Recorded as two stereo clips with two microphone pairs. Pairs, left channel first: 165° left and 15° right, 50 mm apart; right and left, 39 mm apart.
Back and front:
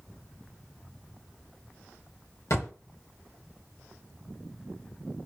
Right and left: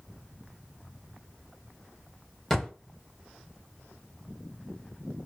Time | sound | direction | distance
2.5 | a drawer | straight behind | 0.7 m